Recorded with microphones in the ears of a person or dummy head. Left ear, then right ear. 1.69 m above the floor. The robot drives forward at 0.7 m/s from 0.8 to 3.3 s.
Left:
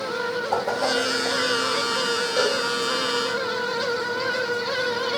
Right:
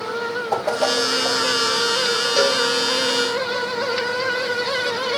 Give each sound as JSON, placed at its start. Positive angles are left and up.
{"t": 0.5, "sound": "a whoosh", "side_deg": -60, "distance_m": 2.5}
{"t": 2.4, "sound": "a cowbell", "side_deg": -45, "distance_m": 3.5}